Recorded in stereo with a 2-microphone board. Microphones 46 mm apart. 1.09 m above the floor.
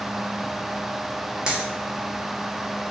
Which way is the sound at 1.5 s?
20° right (ahead or behind).